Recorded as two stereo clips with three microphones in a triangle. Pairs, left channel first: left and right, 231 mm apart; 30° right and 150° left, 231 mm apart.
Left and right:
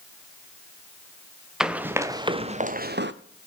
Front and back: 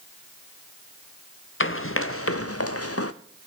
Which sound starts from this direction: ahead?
Running footsteps, at 1.6 s.